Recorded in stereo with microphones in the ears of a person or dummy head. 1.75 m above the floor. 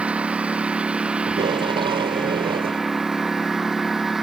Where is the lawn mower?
10° right (ahead or behind); by 4.2 s 5° right (ahead or behind).